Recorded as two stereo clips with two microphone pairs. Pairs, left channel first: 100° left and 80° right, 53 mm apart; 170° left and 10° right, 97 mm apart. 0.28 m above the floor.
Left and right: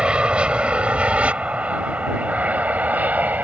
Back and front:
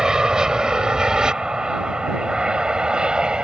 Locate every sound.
0.0 s an aircraft: 80° right; by 3.4 s 85° right